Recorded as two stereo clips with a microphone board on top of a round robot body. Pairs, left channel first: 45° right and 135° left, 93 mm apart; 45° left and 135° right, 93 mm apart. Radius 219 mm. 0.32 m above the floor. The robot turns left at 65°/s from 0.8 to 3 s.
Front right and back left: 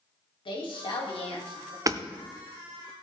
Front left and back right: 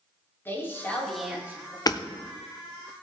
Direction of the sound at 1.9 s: 85° left.